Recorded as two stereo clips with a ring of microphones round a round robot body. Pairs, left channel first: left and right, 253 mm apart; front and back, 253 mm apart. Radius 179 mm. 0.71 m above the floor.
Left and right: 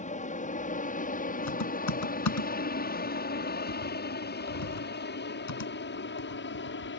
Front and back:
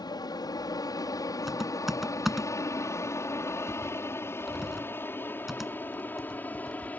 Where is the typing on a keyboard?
90° left.